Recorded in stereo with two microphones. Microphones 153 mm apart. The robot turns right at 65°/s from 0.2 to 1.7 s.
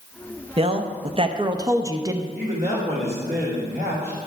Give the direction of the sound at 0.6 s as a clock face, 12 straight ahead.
4 o'clock.